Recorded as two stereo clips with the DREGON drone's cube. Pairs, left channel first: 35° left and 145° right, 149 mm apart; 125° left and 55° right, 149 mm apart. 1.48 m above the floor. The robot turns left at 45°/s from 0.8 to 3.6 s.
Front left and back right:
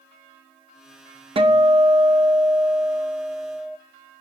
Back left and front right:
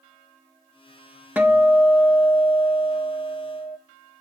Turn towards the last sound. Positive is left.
turn(degrees=130)